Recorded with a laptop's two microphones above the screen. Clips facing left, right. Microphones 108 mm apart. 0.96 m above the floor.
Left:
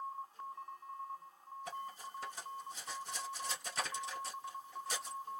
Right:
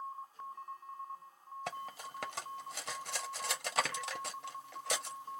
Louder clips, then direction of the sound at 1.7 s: Right 2 dB; 80° right.